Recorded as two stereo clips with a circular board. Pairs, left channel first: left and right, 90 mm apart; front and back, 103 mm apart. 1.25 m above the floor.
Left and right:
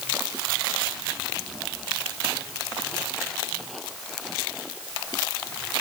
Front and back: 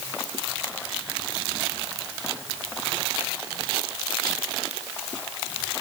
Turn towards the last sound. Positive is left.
No sound to turn to.